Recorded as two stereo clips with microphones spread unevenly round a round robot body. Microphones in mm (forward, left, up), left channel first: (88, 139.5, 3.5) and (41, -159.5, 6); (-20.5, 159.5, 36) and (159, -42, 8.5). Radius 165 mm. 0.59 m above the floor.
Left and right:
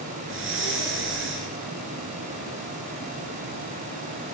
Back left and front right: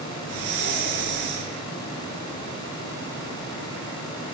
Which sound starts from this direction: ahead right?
Breathing, at 0.2 s.